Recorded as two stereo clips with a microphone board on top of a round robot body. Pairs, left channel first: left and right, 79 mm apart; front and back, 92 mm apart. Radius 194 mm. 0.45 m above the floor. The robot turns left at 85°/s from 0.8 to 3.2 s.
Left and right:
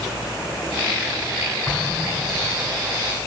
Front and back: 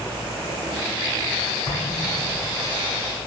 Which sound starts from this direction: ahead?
An explosion, at 1.7 s.